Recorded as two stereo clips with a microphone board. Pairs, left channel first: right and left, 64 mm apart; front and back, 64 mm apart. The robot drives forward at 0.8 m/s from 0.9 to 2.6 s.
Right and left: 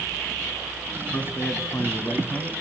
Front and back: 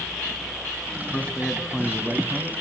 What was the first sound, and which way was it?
A man speaking, 60° right.